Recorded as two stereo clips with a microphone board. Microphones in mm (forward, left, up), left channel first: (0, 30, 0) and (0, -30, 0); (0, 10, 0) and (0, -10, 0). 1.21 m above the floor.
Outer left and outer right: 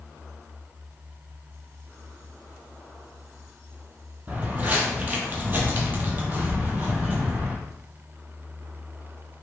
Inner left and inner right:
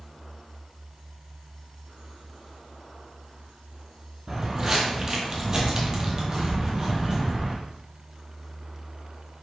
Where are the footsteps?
25° right (ahead or behind), 1.4 m.